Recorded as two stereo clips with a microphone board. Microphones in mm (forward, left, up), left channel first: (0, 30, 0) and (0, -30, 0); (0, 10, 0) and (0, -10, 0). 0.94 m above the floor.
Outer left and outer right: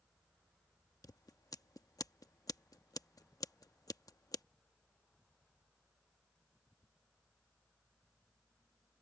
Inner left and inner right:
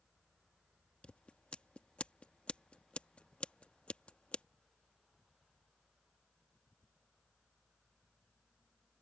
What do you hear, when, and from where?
1.0 s scissors: 80° left